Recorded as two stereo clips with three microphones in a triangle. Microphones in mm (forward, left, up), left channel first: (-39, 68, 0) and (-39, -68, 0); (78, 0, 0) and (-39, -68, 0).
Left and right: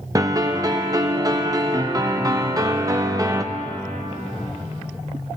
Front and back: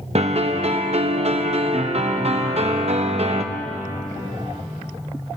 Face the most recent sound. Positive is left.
turn(degrees=-145)